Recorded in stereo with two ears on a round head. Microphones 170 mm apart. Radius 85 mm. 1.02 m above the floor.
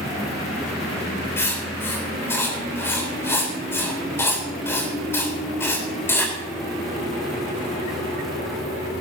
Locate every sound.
1.4 s writing: 15° left (ahead or behind), 3.5 m